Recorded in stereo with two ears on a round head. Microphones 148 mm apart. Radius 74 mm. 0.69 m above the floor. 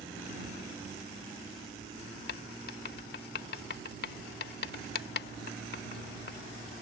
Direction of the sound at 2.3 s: 70° left (ahead or behind).